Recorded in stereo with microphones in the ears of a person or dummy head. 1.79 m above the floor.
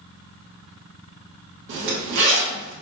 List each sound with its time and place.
1.7 s a zipper: 45° right (ahead or behind), 1.1 m